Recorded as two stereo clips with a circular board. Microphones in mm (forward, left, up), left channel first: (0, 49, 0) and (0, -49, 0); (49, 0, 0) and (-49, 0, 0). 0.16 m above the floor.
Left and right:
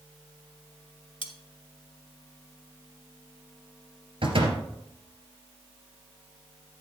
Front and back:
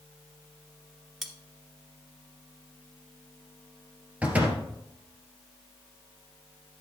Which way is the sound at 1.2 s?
90° left.